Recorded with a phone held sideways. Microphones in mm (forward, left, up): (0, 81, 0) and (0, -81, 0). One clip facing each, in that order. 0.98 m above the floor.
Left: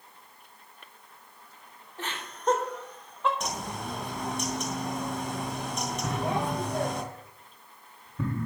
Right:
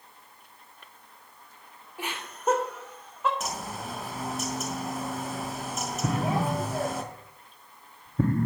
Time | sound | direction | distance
2.0 | laughter | 10° right (ahead or behind) | 3 m
3.4 | a bird | 5° right (ahead or behind) | 1.8 m
6.0 | an explosion | 50° right (ahead or behind) | 0.7 m